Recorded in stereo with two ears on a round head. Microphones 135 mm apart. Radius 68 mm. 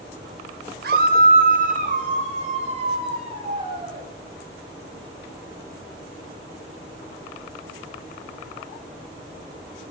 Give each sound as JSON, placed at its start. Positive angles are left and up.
{"t": 0.8, "sound": "a scream", "side_deg": -65, "distance_m": 2.0}